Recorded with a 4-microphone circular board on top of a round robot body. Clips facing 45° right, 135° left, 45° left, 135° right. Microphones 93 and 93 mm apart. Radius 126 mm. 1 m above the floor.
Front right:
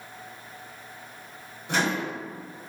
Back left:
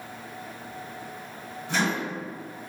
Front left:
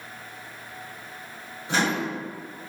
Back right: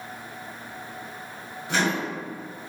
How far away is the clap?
I don't hear a clap.